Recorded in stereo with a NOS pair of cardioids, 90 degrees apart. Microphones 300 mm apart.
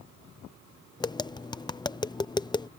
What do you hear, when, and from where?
1.0 s tapping: 15° left